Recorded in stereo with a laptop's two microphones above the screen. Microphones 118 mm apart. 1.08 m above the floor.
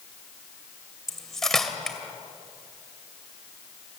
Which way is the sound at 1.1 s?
5° left (ahead or behind).